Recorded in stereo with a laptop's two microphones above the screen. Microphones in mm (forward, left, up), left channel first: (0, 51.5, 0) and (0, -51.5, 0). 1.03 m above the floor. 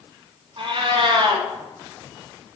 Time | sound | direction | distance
0.6 | a cat meowing | 55° right (ahead or behind) | 1.6 m